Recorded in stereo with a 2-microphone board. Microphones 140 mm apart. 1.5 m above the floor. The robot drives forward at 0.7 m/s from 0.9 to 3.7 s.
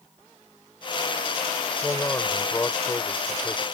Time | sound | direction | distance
1.8 | a man speaking | 15° left (ahead or behind) | ?